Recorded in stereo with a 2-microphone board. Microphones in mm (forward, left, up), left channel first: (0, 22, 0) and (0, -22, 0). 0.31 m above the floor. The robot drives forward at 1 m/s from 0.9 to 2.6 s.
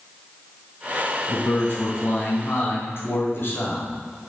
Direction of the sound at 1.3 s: 45° left (ahead or behind).